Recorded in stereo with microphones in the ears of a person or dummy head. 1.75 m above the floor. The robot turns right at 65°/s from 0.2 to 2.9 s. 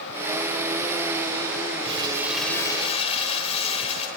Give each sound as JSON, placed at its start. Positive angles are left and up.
{"t": 1.8, "sound": "crumpling", "azimuth_deg": -40, "distance_m": 6.0}